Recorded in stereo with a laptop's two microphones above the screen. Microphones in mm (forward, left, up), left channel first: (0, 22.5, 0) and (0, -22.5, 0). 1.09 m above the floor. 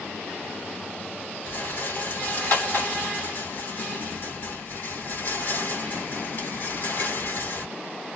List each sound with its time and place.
1.5 s a rattle: 45° left (ahead or behind), 1.2 m